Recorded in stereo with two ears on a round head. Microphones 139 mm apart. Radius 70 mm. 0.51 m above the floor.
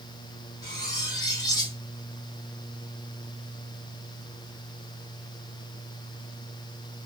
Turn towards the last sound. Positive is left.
turn(degrees=25)  # may be behind; listen again after turning